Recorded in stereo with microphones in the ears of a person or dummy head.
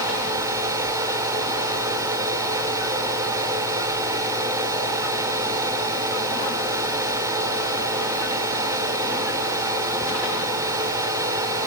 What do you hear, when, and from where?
0.0 s a fan: 15° right (ahead or behind), 1.1 m